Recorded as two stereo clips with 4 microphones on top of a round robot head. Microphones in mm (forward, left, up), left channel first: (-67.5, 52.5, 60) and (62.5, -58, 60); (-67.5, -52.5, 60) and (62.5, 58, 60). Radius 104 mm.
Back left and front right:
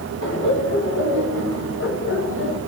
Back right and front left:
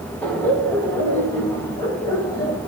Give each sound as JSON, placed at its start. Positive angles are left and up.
{"t": 0.2, "sound": "laughter", "azimuth_deg": 140, "distance_m": 6.0}